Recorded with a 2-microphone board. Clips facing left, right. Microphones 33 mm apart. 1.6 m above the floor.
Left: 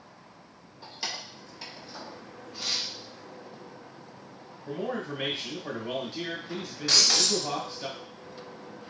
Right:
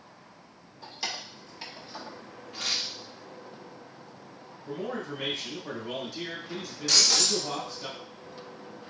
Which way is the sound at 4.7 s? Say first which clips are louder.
Left 2 dB; 50° left (ahead or behind).